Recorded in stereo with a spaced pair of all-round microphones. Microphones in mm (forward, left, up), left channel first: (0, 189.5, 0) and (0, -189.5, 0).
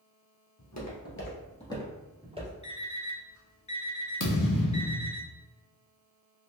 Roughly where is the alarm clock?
Left.